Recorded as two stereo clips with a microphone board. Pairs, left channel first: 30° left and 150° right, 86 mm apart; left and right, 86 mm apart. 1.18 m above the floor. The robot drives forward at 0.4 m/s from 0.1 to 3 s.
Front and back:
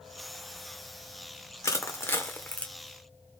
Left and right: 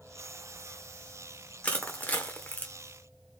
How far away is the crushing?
About 0.9 m.